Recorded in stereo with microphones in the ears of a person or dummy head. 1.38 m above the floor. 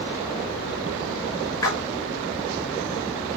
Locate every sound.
1.6 s a splash: 20° left (ahead or behind), 5.5 m